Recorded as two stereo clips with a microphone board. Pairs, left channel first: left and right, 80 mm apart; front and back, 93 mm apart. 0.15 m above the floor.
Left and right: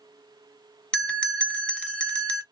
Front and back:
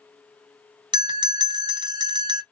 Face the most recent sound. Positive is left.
turn(degrees=165)